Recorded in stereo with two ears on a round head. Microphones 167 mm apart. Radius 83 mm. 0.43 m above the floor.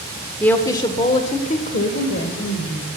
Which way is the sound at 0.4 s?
5° left (ahead or behind).